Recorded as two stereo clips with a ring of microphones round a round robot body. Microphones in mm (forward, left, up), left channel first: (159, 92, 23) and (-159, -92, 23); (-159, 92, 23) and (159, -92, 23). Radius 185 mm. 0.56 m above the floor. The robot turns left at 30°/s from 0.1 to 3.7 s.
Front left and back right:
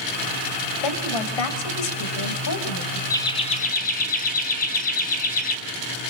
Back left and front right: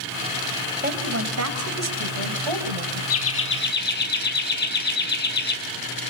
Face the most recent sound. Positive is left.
turn(degrees=95)